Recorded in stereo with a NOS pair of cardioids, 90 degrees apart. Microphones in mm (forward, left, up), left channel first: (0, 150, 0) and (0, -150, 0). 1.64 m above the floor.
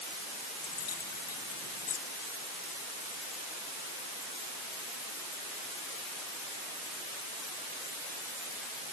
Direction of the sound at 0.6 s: 55° left.